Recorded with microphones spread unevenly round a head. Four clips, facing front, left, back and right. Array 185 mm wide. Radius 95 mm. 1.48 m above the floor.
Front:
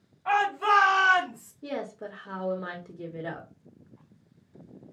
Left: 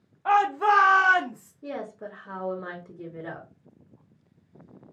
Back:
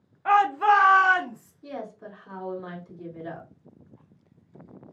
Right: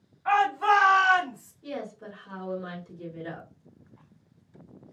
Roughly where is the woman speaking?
Ahead left.